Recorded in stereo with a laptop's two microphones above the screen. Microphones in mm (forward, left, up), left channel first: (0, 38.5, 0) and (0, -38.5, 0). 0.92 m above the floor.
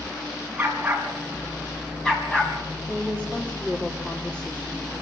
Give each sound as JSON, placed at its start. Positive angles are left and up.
{"t": 0.6, "sound": "a dog barking", "side_deg": -20, "distance_m": 4.0}
{"t": 2.9, "sound": "a woman speaking", "side_deg": 15, "distance_m": 2.5}